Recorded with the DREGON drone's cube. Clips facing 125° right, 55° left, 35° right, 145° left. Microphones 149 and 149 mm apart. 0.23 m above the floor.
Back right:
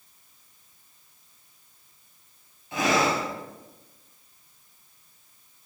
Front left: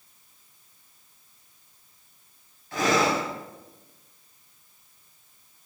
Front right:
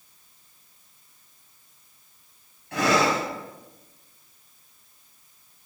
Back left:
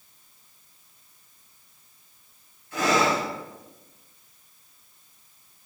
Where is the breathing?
55° right, 2.5 m.